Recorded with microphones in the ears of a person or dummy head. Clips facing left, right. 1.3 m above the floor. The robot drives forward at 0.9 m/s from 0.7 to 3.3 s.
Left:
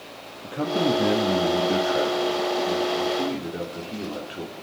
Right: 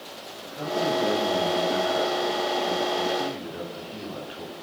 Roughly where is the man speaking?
Left.